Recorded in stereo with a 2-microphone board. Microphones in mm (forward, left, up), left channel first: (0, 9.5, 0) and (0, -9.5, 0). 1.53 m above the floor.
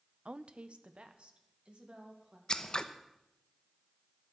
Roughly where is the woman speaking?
Right.